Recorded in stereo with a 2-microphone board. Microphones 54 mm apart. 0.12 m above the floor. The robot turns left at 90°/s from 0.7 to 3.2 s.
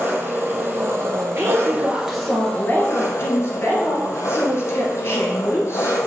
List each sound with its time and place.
0.0 s an engine running: 45° right, 1.2 m; by 6.1 s 90° left, 1.2 m
1.4 s a woman speaking: 105° right, 2 m; by 6.0 s 90° left, 2 m